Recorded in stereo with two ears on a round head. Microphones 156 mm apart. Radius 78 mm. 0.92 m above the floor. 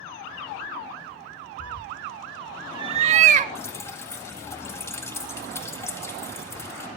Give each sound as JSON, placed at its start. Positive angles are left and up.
{"t": 1.6, "sound": "a cat meowing", "side_deg": 35, "distance_m": 0.6}
{"t": 3.5, "sound": "dripping", "side_deg": 15, "distance_m": 1.9}